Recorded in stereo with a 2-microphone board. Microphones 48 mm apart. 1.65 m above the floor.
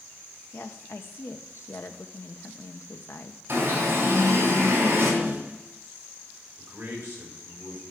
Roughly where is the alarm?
Right.